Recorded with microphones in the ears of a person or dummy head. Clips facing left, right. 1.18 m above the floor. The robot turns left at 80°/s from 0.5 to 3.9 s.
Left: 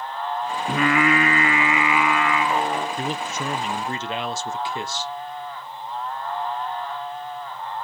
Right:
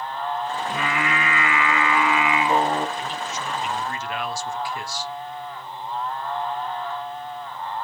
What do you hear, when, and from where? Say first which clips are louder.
0.7 s singing: left 10 dB; 115° left, 0.8 m; by 2.9 s 60° right, 0.8 m
3.0 s a man speaking: left 3 dB; 115° left, 0.5 m; by 5.1 s 40° left, 0.5 m